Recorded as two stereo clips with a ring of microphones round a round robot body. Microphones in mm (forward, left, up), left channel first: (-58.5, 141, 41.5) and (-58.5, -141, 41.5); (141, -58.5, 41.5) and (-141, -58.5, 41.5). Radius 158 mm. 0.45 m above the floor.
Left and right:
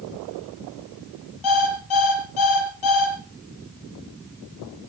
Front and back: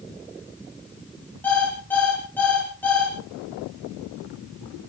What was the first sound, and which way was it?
An alarm clock, 85° left.